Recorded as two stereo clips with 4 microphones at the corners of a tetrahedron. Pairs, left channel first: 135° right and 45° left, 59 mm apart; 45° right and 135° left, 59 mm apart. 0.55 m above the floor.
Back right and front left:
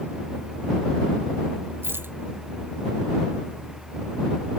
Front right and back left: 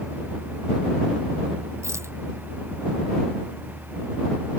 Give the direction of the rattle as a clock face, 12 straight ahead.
9 o'clock.